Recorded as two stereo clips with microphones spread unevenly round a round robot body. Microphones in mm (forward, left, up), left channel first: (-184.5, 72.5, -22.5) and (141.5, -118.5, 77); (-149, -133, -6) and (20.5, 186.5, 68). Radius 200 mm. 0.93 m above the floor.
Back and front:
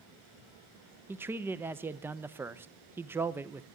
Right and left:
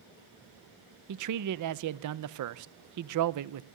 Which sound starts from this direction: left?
A man speaking, at 1.1 s.